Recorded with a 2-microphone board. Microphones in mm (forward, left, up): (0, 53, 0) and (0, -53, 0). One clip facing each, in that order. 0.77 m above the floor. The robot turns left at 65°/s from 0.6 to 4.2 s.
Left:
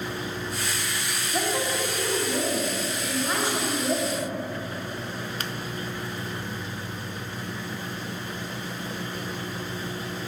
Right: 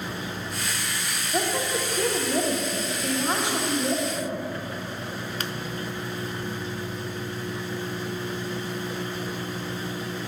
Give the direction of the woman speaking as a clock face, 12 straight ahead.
1 o'clock.